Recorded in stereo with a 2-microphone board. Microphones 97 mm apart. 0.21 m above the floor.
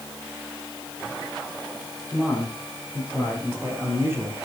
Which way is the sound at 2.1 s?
15° right (ahead or behind).